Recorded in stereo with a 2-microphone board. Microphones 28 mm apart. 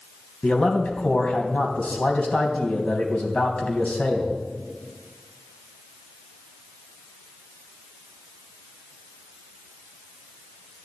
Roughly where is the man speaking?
Left.